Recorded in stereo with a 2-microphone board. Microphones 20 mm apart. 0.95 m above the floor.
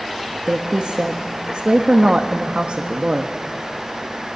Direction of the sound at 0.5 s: 55° right (ahead or behind).